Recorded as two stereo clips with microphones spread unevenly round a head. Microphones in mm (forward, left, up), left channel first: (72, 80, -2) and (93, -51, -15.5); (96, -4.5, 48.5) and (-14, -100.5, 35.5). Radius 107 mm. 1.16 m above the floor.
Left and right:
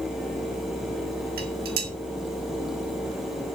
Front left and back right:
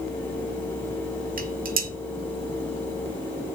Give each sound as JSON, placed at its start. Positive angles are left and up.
{"t": 1.4, "sound": "dishes clattering", "azimuth_deg": -115, "distance_m": 1.6}